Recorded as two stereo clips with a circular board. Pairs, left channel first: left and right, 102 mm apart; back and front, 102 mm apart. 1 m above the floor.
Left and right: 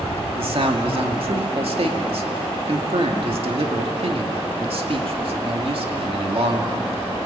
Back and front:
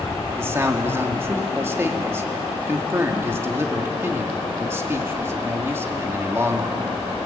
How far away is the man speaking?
About 2 m.